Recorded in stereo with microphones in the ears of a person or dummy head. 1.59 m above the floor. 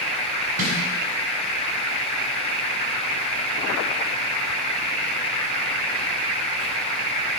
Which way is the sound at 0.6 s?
80° right.